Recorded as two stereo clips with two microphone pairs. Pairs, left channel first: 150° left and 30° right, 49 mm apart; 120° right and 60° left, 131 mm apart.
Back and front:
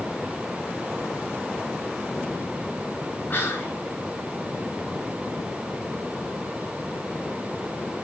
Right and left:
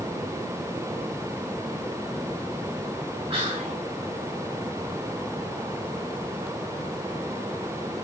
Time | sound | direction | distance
3.3 | whispering | 105° left | 4.5 m